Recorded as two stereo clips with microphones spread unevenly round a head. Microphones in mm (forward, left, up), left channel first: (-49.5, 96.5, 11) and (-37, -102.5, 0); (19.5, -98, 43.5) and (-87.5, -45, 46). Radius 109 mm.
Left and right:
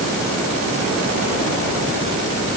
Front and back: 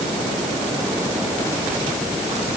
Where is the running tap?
No running tap in this recording.